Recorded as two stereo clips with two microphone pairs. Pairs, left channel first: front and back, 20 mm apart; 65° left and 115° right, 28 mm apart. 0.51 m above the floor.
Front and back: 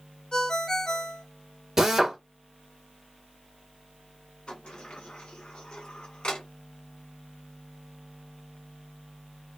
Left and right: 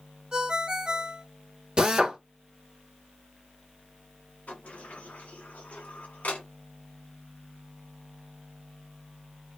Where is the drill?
140° right, 1.0 m.